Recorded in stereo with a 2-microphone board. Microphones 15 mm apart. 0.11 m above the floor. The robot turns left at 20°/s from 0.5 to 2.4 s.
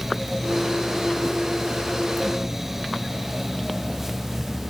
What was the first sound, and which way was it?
Only background noise.